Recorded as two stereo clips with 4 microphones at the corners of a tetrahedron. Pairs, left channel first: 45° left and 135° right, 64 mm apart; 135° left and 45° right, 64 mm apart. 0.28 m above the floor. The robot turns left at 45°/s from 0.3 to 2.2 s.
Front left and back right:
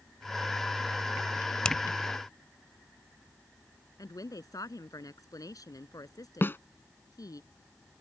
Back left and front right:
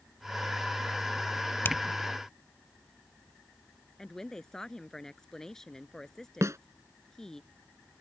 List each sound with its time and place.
1.6 s a finger snap: 115° left; by 1.8 s 105° left
4.0 s a woman speaking: 50° left
6.4 s a snare drum: 10° right